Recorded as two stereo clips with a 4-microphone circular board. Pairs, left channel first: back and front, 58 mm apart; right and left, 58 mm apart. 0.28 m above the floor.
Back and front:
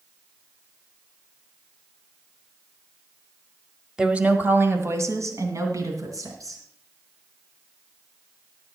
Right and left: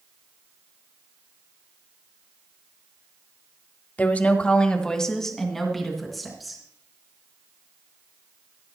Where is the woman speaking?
65° right, 1.3 m; by 6.6 s 5° left, 4 m.